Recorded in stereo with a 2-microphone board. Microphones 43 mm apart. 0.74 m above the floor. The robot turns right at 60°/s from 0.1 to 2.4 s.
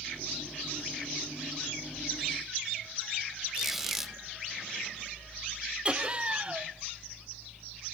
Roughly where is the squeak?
Centre.